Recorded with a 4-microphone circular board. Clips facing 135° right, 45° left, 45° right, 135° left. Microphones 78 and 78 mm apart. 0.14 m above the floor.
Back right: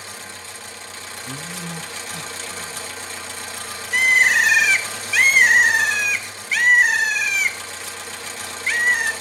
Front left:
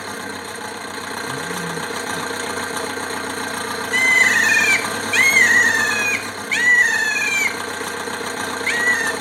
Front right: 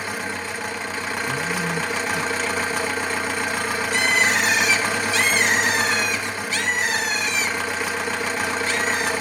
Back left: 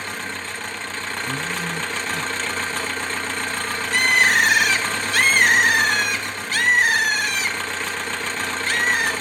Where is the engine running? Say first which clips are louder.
Front left 9 dB, front right 2 dB; 35° left, 0.8 m.